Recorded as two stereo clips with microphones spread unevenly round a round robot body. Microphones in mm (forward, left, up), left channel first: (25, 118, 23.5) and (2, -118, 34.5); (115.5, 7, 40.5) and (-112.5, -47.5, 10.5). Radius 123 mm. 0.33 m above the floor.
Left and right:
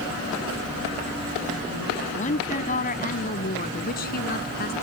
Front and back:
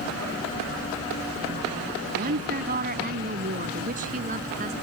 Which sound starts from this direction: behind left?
A woman speaking, at 2.2 s.